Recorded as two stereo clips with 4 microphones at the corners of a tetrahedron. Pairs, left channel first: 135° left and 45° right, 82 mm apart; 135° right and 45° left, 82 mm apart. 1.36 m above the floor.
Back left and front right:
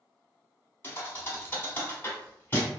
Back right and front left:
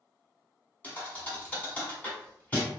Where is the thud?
175° left, 1.1 m.